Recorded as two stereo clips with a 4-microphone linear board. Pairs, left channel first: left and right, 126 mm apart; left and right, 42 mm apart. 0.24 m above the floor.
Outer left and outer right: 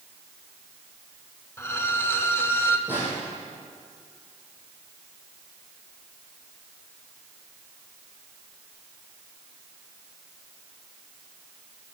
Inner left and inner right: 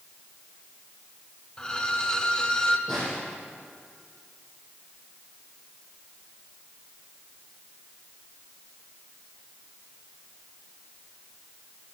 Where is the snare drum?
20° left (ahead or behind), 4 m.